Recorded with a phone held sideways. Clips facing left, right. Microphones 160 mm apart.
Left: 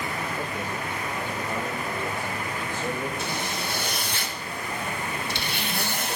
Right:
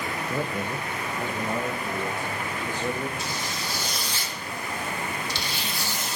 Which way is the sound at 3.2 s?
60° left (ahead or behind).